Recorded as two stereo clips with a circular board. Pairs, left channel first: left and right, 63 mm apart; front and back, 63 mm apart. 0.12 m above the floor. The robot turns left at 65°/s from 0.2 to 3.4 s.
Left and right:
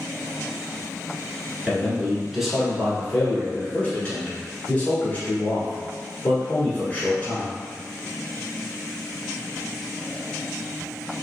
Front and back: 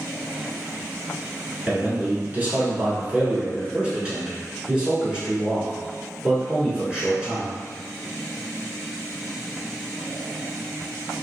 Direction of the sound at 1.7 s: 125° right.